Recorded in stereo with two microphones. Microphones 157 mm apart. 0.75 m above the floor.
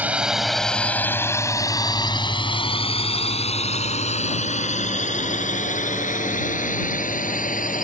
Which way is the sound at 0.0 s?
10° right (ahead or behind).